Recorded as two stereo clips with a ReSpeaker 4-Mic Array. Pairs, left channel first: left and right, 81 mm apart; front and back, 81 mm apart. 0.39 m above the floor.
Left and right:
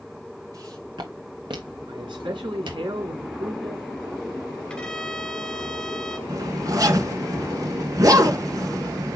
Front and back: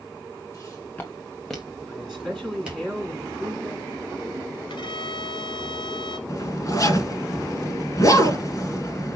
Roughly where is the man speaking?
Right.